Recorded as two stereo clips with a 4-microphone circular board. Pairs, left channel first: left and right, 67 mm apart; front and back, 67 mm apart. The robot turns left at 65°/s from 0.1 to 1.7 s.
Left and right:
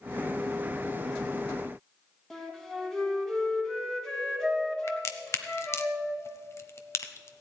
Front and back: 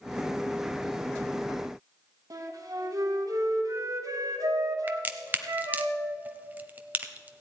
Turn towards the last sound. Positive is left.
turn(degrees=120)